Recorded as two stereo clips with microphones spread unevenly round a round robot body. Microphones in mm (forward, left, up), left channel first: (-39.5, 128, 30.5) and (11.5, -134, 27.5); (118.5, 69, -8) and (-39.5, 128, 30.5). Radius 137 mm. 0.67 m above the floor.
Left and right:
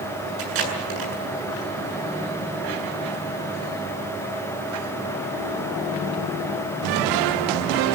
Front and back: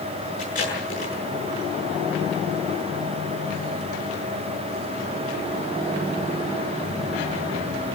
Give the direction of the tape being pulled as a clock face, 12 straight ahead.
3 o'clock.